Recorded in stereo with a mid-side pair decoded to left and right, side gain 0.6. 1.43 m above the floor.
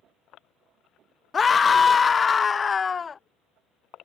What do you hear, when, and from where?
1.3 s a scream: 25° left